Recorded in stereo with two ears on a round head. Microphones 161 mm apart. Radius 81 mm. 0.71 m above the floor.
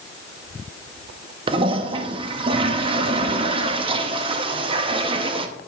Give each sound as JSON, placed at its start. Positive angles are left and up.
{"t": 1.5, "sound": "a toilet flushing", "side_deg": -30, "distance_m": 0.6}